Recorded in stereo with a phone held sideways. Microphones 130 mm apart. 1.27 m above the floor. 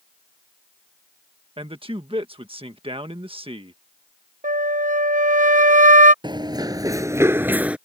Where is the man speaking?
45° right (ahead or behind).